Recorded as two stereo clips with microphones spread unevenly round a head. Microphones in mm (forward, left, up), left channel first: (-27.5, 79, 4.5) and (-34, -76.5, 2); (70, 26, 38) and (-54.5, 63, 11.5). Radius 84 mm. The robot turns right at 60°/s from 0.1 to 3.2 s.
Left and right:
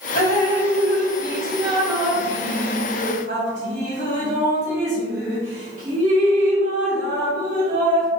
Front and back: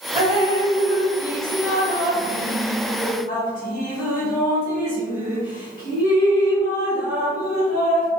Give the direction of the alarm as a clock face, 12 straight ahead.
No alarm in this recording.